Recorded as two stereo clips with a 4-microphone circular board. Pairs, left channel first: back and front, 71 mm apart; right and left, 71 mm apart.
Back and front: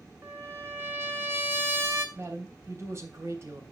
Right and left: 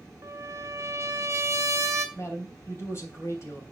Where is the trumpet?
50° left, 1.5 m.